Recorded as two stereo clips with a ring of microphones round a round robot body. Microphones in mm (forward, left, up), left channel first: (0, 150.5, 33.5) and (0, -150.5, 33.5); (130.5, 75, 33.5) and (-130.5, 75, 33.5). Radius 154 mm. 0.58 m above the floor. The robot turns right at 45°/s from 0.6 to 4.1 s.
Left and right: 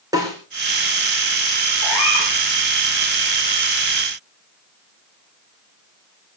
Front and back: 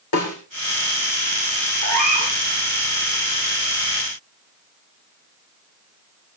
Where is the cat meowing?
40° left, 9 m; by 2.4 s 65° left, 9 m.